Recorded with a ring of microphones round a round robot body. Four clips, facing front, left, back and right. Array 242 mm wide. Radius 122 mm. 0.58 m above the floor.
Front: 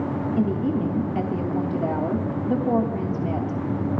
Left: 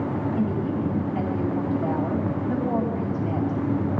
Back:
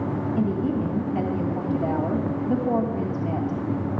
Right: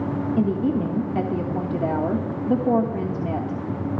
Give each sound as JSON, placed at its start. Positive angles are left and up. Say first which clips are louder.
{"t": 0.4, "sound": "a woman speaking", "louder": "right 7 dB, front 1 dB", "azimuth_deg": -75, "distance_m": 1.3}